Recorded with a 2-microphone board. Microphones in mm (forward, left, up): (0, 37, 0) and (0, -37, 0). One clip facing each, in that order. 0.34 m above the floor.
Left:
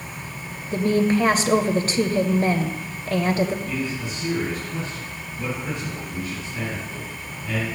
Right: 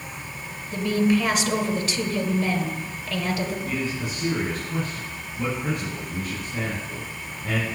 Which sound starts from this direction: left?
A woman speaking, at 0.7 s.